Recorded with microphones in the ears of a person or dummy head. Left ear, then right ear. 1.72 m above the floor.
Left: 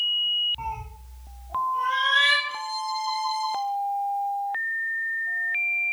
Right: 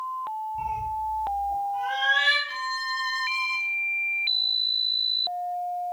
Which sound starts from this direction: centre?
A cat meowing, at 0.6 s.